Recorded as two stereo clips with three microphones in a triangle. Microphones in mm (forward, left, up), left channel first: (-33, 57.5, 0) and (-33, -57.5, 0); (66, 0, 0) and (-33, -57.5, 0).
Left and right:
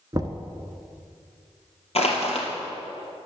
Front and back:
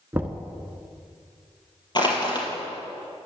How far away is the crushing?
About 2.5 m.